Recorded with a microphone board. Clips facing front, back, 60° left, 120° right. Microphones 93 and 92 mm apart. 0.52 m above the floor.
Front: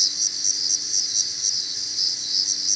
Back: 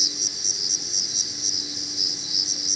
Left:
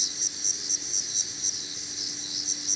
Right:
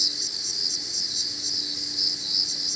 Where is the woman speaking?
No woman speaking in this recording.